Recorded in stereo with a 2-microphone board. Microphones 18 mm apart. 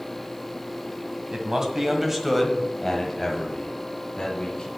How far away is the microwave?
I don't hear a microwave.